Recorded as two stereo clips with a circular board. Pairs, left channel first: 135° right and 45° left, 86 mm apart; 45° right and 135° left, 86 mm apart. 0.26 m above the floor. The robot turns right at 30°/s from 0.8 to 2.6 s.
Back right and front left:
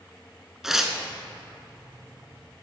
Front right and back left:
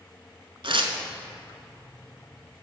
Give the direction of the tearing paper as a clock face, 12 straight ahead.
8 o'clock.